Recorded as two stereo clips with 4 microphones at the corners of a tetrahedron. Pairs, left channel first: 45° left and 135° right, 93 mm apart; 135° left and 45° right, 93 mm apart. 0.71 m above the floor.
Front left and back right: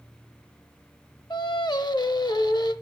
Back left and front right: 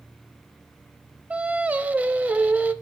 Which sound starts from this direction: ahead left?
Singing, at 1.3 s.